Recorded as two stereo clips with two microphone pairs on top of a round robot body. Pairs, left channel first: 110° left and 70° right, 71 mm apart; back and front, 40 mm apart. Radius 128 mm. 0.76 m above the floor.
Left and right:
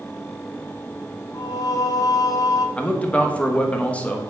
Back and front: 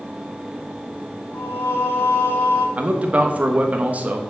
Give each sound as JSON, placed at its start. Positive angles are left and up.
{"t": 1.3, "sound": "singing", "azimuth_deg": 150, "distance_m": 0.9}
{"t": 2.8, "sound": "a man speaking", "azimuth_deg": 40, "distance_m": 1.4}